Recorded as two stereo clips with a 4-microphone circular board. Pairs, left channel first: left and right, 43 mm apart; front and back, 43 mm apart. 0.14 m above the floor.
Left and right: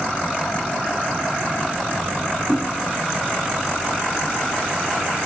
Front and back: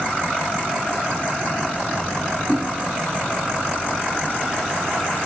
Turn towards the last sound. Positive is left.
turn(degrees=115)